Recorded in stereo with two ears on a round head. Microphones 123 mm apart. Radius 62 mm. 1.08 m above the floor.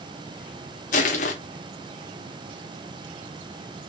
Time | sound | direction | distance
0.9 | crushing | 60° left (ahead or behind) | 0.9 m